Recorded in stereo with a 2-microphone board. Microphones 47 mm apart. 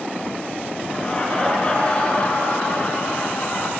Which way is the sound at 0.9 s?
20° left (ahead or behind).